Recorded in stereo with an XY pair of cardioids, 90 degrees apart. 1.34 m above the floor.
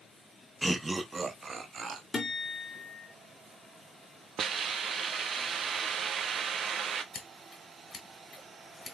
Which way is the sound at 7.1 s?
40° left.